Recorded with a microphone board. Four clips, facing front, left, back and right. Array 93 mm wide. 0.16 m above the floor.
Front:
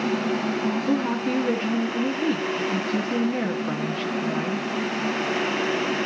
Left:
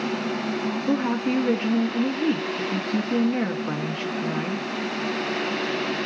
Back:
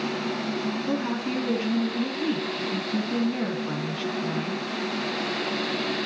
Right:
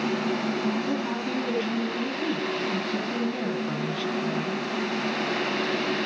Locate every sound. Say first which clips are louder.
0.9 s a woman speaking: left 5 dB, front 4 dB; 75° left, 1.2 m